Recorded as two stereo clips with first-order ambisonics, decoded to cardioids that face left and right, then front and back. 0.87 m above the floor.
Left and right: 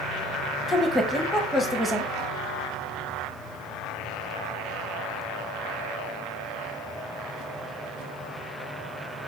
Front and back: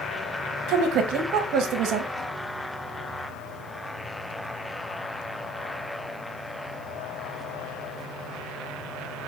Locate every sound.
0.7 s a woman speaking: 175° left, 0.8 m